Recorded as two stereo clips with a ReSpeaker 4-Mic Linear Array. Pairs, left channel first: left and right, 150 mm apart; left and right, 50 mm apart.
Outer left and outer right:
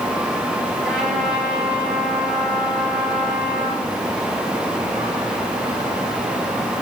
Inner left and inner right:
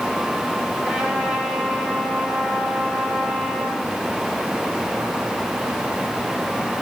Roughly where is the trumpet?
Centre.